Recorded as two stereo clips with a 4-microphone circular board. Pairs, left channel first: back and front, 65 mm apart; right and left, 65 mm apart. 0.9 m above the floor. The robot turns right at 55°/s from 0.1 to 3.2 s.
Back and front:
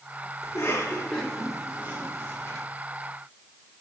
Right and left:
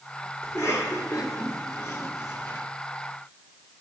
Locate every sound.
0.4 s a cough: 145° right, 2.5 m; by 2.7 s 20° right, 2.5 m